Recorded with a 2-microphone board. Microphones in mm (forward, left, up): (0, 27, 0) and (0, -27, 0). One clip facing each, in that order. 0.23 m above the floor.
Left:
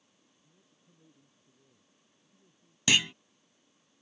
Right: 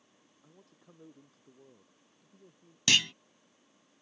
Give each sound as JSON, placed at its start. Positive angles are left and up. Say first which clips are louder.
{"t": 0.4, "sound": "a man speaking", "louder": "right 11 dB", "side_deg": -80}
{"t": 2.9, "sound": "a clunk", "louder": "left 1 dB", "side_deg": 15}